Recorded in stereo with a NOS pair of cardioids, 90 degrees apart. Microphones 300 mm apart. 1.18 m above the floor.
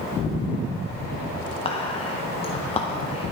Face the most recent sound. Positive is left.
turn(degrees=20)